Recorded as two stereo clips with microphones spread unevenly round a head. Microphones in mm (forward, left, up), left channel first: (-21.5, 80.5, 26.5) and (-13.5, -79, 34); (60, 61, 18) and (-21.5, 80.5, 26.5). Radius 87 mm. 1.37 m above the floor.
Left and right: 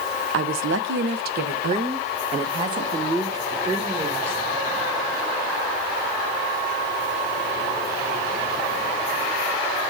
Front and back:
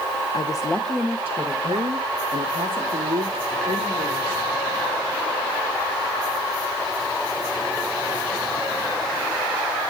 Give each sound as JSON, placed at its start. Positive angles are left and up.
{"t": 0.3, "sound": "a woman speaking", "azimuth_deg": -80, "distance_m": 0.8}